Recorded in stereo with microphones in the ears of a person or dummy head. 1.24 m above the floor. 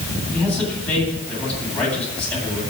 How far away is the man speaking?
About 9.5 m.